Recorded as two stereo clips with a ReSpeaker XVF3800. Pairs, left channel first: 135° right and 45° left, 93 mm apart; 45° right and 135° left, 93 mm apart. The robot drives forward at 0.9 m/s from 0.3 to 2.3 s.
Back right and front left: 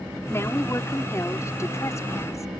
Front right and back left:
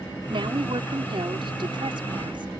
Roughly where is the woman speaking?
Behind.